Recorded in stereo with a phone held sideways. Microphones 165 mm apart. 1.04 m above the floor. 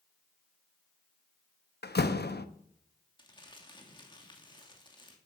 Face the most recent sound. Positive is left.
turn(degrees=25)  # may be behind; listen again after turning